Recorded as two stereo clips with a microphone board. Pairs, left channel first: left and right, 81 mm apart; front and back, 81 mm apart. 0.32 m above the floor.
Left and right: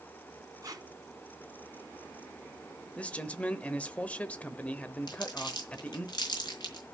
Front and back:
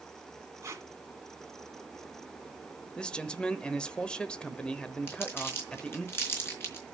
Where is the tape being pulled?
130° right, 2.0 m.